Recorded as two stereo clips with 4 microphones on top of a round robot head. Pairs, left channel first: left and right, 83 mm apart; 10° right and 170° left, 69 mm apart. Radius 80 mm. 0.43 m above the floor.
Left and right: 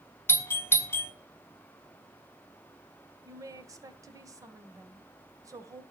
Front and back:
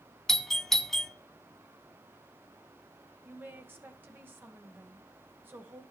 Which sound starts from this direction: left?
A doorbell, at 0.3 s.